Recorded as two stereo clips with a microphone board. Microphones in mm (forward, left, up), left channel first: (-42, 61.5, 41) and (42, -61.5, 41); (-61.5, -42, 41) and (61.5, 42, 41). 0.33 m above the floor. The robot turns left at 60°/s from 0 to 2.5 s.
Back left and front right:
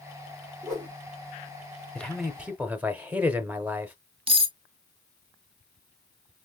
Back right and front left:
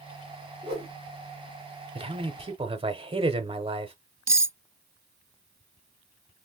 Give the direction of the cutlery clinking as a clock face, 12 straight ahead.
1 o'clock.